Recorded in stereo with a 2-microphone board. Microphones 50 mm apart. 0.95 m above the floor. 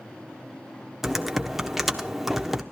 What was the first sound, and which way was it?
Typing on a keyboard, 5° right (ahead or behind).